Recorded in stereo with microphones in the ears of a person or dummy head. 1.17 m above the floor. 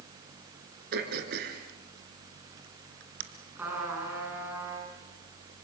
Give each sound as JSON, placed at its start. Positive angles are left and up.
{"t": 0.9, "sound": "throat clearing", "side_deg": -60, "distance_m": 3.0}
{"t": 3.6, "sound": "a trumpet", "side_deg": -10, "distance_m": 8.5}